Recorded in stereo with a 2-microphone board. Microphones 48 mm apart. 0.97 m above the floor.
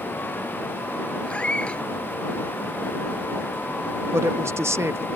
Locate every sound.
1.2 s a cat meowing: 20° left (ahead or behind)
4.1 s a woman speaking: 60° right (ahead or behind)